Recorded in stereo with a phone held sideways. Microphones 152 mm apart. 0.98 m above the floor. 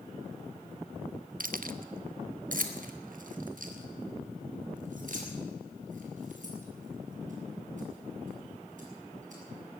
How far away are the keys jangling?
About 0.5 m.